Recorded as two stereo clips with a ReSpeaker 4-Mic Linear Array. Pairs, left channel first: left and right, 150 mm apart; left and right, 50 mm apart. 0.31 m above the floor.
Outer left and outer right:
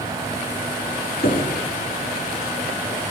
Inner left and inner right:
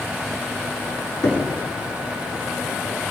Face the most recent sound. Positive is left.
turn(degrees=75)  # may be behind; listen again after turning